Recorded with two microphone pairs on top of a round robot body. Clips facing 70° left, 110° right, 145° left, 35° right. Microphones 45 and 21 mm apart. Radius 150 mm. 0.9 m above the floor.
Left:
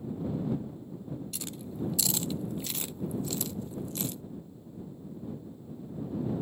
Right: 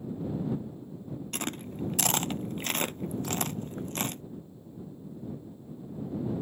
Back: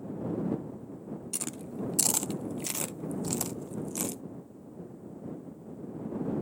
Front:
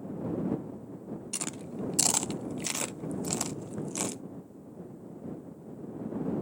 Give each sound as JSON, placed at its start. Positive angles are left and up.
{"t": 1.3, "sound": "chewing", "azimuth_deg": -105}
{"t": 3.2, "sound": "a thud", "azimuth_deg": -140}